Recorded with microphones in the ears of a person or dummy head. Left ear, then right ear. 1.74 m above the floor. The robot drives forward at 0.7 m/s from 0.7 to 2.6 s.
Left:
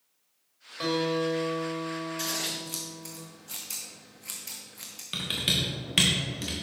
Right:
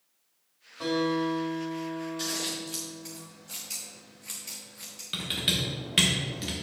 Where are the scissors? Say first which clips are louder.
Even; 20° left (ahead or behind), 0.7 m; by 5.0 s 15° left (ahead or behind), 1.0 m.